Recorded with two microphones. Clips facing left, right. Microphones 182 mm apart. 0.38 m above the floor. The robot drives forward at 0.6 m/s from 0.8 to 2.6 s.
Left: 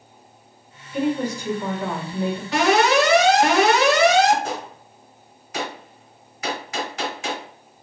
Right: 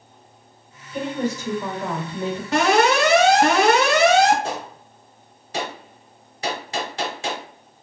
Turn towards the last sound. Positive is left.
turn(degrees=-30)  # may be behind; listen again after turning